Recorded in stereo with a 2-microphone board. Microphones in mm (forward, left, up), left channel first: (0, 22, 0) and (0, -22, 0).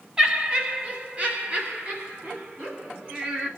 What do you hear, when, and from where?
0.2 s laughter: 20° right (ahead or behind), 1.3 m; by 3.5 s 40° right (ahead or behind), 2 m